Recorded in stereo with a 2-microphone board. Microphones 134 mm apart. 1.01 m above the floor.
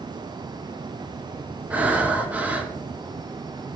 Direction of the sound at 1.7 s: 10° right (ahead or behind).